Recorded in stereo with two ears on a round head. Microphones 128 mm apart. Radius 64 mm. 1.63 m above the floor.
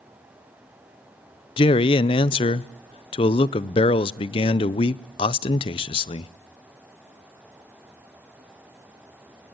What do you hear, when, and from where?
1.6 s a man speaking: 35° left (ahead or behind), 0.6 m